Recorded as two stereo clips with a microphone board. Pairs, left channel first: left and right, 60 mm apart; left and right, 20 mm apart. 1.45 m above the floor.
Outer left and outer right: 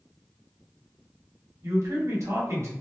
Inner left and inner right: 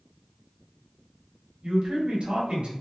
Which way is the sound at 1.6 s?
55° right (ahead or behind).